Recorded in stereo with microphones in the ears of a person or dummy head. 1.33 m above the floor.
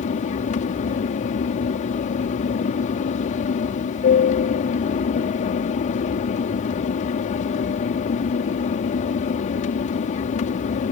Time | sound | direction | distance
0.0 | an aircraft | 40° left (ahead or behind) | ?